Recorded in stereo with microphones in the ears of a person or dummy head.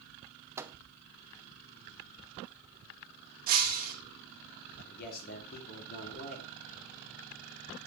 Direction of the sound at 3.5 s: 45° right (ahead or behind).